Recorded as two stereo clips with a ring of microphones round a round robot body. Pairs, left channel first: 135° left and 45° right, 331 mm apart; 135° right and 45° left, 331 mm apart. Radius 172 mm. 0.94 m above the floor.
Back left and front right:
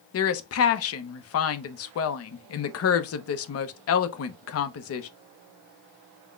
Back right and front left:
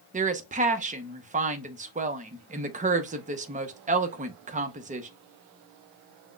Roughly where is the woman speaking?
Left.